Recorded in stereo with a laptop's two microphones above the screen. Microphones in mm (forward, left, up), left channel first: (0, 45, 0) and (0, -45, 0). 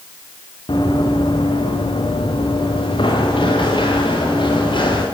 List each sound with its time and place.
0.7 s running footsteps: 70° left (ahead or behind), 4.5 m; by 5.0 s 75° left (ahead or behind), 9.5 m